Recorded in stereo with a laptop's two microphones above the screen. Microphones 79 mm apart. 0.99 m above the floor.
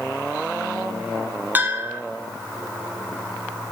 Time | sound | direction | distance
1.6 | a bell | 25° right (ahead or behind) | 1.6 m